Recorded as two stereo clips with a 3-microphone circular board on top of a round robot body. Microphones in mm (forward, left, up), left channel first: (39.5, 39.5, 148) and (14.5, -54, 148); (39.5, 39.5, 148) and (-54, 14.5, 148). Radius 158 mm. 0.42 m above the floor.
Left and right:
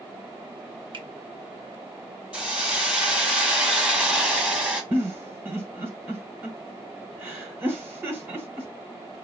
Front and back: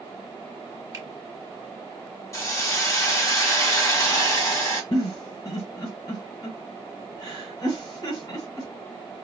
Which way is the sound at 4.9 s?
35° right.